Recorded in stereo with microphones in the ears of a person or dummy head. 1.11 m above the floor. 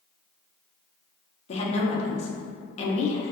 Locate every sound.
1.5 s a woman speaking: 35° left (ahead or behind), 0.6 m